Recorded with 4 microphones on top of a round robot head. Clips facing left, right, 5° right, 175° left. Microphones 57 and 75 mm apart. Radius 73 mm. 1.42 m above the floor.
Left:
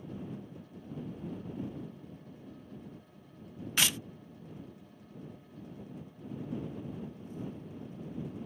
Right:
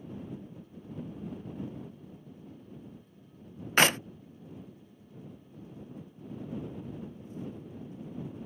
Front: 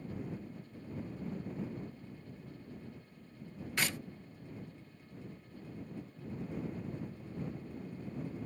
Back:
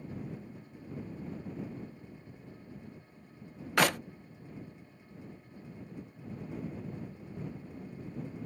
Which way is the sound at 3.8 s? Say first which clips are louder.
Right 8 dB, back 10 dB; 135° right.